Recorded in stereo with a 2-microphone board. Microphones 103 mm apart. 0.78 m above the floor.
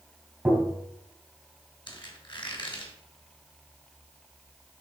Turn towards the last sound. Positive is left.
turn(degrees=50)  # may be behind; listen again after turning